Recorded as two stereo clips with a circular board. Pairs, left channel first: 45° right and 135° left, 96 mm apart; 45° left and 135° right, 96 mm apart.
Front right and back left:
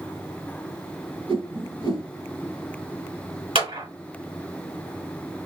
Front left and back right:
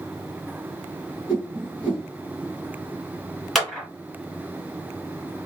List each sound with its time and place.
1.3 s a whoosh: 150° left, 2.5 m
3.5 s a clap: 135° left, 2.5 m